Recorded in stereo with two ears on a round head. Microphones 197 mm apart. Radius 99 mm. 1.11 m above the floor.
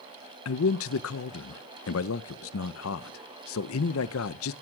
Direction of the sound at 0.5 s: 65° left (ahead or behind).